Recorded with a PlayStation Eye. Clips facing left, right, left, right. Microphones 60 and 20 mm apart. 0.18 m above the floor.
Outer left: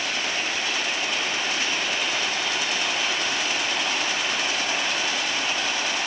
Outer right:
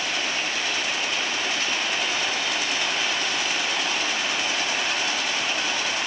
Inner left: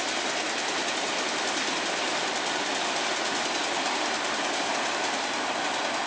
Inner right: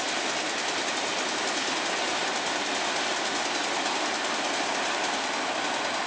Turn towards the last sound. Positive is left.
No sound to turn to.